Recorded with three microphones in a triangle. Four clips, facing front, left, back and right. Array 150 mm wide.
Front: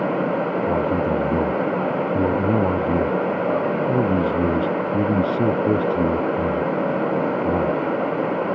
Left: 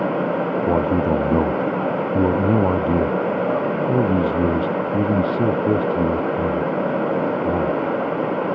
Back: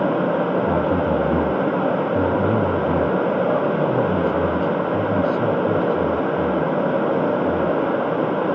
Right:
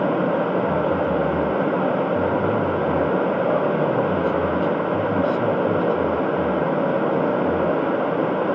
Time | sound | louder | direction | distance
0.7 | a man speaking | left 2 dB, back 1 dB | 90° left | ?